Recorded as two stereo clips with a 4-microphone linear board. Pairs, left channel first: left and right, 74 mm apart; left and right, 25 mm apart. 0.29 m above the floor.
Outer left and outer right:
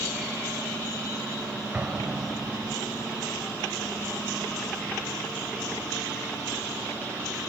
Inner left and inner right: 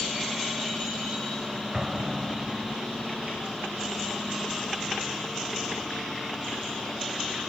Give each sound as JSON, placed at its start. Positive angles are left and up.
{"t": 1.7, "sound": "an explosion", "side_deg": -20, "distance_m": 0.9}